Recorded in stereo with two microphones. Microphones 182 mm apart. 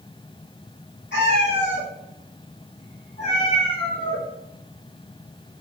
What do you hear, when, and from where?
1.1 s a cat meowing: 75° left (ahead or behind), 1.7 m; by 4.2 s 20° left (ahead or behind), 1.5 m